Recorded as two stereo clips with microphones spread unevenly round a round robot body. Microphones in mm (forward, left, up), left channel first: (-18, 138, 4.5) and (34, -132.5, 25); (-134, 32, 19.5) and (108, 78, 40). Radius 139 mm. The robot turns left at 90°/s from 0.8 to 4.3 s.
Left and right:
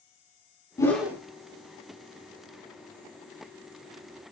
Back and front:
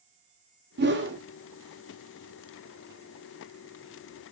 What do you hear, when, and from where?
0.8 s a whoosh: 30° left, 0.9 m; by 1.2 s 5° right, 0.9 m